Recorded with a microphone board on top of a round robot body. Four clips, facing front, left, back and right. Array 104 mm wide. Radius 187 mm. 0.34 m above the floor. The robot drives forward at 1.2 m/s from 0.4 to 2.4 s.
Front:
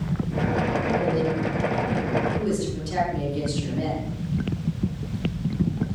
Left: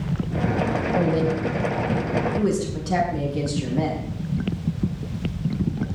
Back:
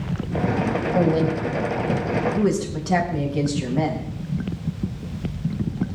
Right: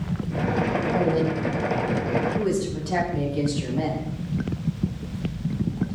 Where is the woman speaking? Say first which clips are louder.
Left 2 dB, back 3 dB; 170° left, 3.5 m; by 4.1 s 175° left, 5.5 m.